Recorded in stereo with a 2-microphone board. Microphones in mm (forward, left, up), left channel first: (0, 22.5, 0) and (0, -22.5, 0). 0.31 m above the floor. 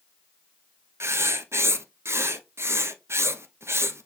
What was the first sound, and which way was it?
Writing, 75° right (ahead or behind).